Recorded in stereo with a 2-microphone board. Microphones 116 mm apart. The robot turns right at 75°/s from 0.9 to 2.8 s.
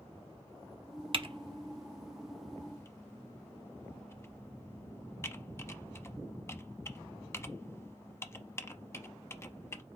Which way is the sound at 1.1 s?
45° right (ahead or behind).